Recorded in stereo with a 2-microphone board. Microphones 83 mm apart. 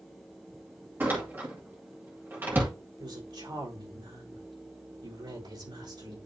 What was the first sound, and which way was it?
A door slam, 25° right (ahead or behind).